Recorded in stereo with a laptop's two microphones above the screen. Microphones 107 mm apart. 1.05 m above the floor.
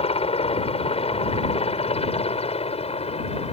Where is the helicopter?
70° left (ahead or behind).